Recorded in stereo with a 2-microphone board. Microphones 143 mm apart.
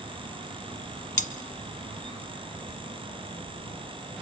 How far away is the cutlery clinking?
About 1.2 m.